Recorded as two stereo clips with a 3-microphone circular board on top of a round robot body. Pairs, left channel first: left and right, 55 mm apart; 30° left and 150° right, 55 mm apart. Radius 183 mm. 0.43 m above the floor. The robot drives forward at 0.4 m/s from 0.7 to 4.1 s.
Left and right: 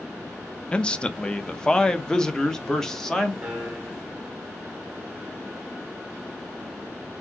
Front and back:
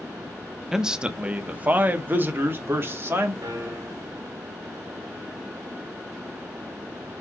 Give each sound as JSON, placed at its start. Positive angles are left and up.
{"t": 0.7, "sound": "a man speaking", "azimuth_deg": 135, "distance_m": 0.8}
{"t": 3.4, "sound": "a piano", "azimuth_deg": -165, "distance_m": 1.4}